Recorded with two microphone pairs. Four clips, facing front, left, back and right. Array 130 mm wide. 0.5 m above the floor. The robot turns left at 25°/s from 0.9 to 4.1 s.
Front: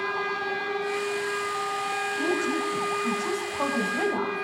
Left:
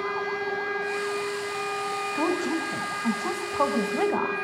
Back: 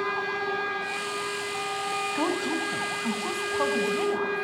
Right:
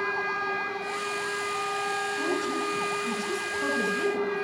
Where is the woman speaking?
130° left, 4 m; by 4.5 s 80° left, 4 m.